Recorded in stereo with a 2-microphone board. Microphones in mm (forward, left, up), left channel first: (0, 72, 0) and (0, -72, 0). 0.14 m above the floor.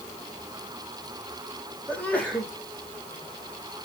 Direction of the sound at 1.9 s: 10° left (ahead or behind).